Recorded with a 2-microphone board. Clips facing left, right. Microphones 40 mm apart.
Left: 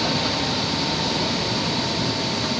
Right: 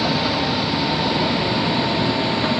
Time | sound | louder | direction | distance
0.0 | a vehicle | right 3 dB | 10° right (ahead or behind) | ?